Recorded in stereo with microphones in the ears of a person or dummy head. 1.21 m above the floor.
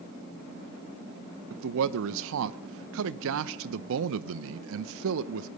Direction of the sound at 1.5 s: 75° right (ahead or behind).